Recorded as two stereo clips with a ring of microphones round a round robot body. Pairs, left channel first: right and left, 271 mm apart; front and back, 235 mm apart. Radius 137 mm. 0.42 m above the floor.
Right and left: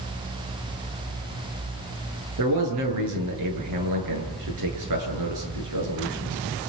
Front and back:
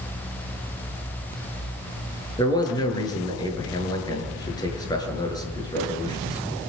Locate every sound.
2.4 s a man speaking: 75° left, 8.5 m